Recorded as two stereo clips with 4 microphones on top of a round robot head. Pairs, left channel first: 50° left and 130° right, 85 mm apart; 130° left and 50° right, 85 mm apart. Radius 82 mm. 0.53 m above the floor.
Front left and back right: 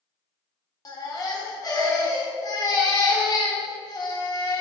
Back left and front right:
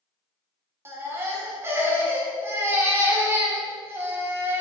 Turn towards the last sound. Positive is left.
turn(degrees=10)